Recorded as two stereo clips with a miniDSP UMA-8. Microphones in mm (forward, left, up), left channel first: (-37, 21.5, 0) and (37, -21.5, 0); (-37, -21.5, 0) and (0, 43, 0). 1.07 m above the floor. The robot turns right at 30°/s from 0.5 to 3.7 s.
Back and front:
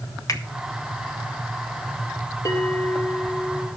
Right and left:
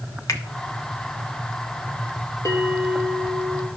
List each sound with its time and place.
0.3 s a finger snap: 160° right, 1.2 m
2.5 s a bell: 165° right, 2 m; by 3.7 s 125° right, 2 m